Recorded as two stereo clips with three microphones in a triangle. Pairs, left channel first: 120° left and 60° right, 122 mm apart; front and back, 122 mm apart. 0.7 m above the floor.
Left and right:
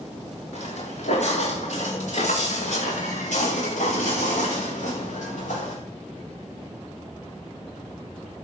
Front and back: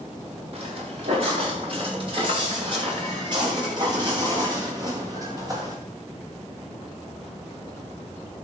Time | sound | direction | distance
0.5 | footsteps | 140° left | 7.5 m